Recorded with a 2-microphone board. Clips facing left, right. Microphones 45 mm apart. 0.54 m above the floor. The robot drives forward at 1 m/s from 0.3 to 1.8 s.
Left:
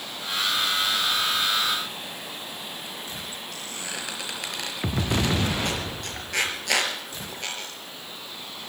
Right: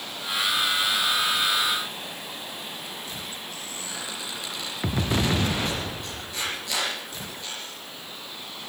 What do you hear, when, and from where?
3.5 s a squeak: 65° left (ahead or behind), 4.5 m